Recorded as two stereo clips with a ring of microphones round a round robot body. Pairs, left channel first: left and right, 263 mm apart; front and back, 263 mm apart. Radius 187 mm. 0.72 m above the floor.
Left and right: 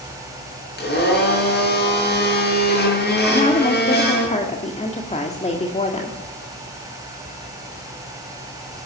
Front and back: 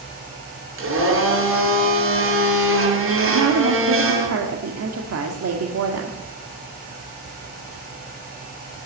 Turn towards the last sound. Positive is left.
turn(degrees=155)